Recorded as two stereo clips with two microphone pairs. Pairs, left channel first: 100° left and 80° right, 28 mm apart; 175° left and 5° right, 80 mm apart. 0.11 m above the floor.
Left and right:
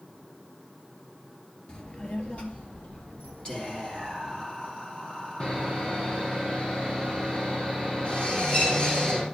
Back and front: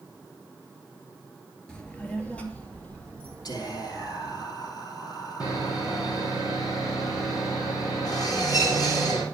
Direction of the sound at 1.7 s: 105° left.